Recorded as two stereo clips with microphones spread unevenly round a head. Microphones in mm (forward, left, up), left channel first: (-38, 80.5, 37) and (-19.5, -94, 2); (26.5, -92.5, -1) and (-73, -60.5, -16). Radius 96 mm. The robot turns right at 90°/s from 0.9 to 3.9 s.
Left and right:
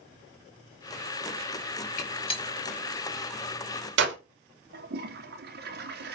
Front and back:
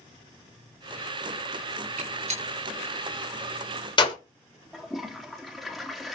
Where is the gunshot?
130° left, 5.5 m; by 4.2 s 60° right, 5.5 m.